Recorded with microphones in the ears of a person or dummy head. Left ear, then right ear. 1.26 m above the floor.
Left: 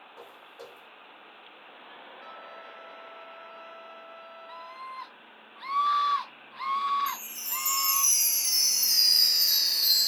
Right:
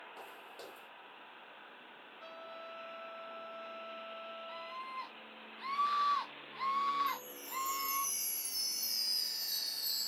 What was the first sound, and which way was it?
Footsteps, 50° right (ahead or behind).